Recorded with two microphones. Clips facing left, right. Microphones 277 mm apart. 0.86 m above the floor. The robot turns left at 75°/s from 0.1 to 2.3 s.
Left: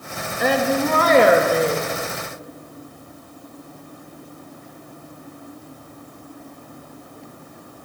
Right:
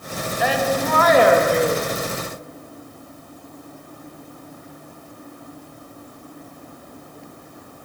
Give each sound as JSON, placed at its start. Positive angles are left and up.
{"t": 0.4, "sound": "a woman speaking", "azimuth_deg": 95, "distance_m": 1.3}